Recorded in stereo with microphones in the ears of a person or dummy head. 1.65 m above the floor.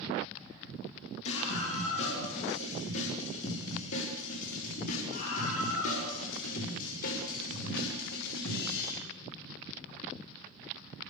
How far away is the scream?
About 7.5 m.